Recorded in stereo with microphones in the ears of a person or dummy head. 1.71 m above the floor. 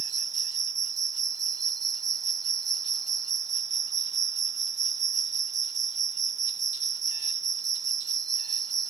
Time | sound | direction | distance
0.0 | an insect | 15° right (ahead or behind) | ?